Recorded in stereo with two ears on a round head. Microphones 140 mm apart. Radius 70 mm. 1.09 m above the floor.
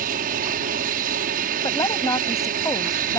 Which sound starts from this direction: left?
A woman speaking, at 1.6 s.